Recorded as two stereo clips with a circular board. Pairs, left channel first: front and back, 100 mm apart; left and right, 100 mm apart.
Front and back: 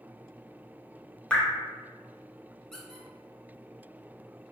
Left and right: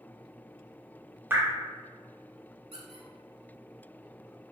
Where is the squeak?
85° right, 0.6 m.